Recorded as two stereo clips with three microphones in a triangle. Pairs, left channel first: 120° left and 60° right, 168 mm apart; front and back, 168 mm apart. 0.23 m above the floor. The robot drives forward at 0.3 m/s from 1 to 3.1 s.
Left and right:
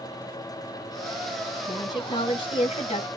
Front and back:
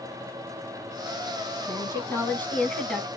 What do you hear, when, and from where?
1.7 s a woman speaking: 65° left, 1.6 m; by 3.1 s 85° left, 1.5 m